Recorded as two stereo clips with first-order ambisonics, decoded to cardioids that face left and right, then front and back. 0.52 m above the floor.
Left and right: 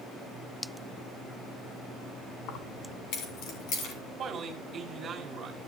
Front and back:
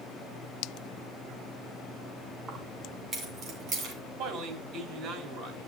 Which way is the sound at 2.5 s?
110° left.